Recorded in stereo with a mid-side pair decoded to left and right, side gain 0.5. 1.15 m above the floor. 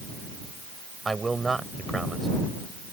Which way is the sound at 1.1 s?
20° right.